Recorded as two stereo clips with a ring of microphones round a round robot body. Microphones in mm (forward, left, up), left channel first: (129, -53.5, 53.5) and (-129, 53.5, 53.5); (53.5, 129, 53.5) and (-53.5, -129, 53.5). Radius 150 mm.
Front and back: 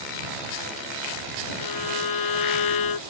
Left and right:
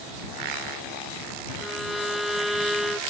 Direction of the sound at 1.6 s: 25° right.